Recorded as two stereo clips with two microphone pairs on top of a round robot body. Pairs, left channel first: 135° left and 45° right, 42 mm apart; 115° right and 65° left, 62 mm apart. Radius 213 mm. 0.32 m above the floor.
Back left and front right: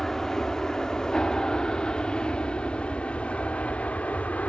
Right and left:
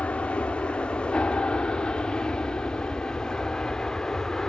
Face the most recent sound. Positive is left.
turn(degrees=175)